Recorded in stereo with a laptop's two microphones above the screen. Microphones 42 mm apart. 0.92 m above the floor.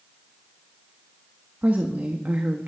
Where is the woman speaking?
45° right (ahead or behind), 1.3 m.